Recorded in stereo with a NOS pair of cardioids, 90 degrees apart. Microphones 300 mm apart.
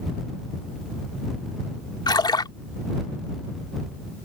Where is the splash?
15° left.